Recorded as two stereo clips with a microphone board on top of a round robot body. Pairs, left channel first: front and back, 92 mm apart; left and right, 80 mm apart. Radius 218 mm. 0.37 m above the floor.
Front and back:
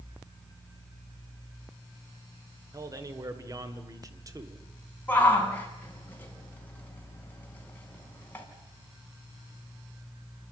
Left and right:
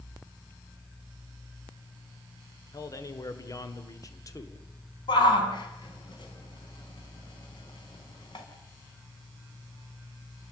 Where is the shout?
70° left, 5 m.